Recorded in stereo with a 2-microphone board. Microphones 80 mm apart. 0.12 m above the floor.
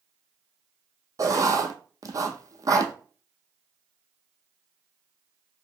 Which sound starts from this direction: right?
Writing, at 1.2 s.